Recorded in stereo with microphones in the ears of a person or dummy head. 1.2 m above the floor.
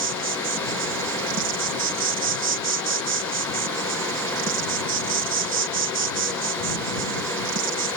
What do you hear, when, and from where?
0.0 s an insect: 60° right (ahead or behind)